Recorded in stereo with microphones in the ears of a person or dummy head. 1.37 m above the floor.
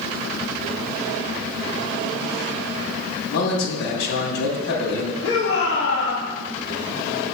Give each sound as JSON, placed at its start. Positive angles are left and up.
{"t": 3.3, "sound": "a man speaking", "side_deg": 75, "distance_m": 2.5}
{"t": 5.2, "sound": "a shout", "side_deg": 70, "distance_m": 2.0}